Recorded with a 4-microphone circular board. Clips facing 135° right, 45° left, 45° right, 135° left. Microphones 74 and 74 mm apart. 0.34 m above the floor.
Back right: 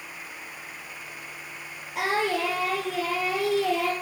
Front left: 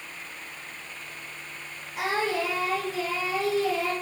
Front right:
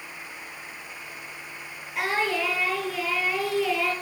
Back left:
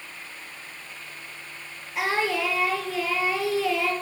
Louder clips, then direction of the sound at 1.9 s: Back right 1 dB, back left 1 dB; 135° right.